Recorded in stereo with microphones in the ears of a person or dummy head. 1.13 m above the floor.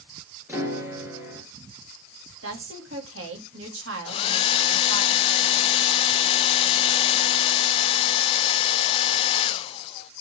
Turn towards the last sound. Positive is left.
turn(degrees=30)  # may be behind; listen again after turning